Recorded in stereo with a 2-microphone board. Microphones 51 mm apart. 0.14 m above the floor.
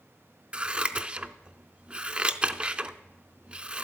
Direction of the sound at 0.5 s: 25° right (ahead or behind).